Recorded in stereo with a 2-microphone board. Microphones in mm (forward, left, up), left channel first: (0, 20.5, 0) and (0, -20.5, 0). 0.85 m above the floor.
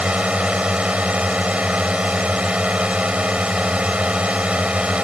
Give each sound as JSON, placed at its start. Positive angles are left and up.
{"t": 0.0, "sound": "a drone", "side_deg": -30}